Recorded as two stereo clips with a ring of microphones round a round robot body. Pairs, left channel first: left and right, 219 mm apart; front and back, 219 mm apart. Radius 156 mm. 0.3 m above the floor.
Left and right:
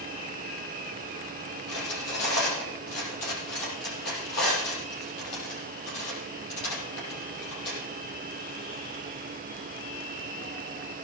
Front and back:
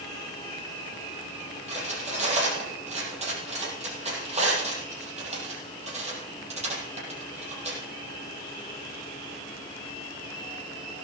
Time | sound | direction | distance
1.7 | cutlery clinking | 120° left | 6 m